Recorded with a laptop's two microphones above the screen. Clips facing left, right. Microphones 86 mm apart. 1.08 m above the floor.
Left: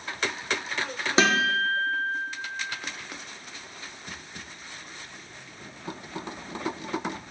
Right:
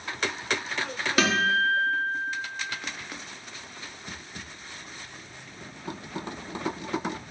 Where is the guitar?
25° left (ahead or behind), 0.7 m.